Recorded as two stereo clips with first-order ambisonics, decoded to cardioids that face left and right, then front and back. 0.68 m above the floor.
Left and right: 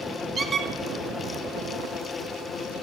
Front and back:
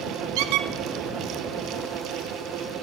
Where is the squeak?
165° right, 0.5 m.